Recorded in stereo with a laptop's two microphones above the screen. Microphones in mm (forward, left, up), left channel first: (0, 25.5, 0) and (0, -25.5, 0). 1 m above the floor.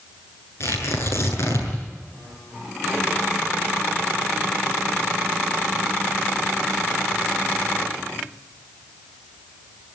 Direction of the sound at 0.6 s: 55° left (ahead or behind).